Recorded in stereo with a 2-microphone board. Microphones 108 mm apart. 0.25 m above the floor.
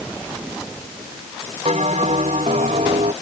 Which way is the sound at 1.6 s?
80° right.